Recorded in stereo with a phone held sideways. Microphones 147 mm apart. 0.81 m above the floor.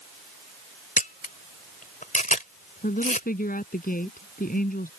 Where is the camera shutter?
65° left (ahead or behind).